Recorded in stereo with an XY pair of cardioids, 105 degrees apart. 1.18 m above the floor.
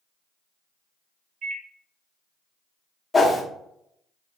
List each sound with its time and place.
1.4 s a microwave: 65° right, 1.1 m
3.1 s a whoosh: 25° left, 0.6 m